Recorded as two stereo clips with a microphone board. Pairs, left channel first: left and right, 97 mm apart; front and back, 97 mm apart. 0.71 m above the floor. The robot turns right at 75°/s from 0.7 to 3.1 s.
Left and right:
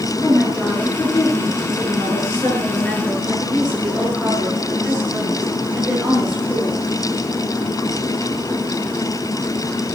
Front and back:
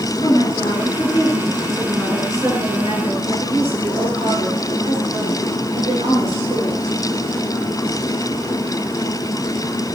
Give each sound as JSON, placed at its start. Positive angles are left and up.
{"t": 0.2, "sound": "a woman speaking", "azimuth_deg": 5, "distance_m": 10.0}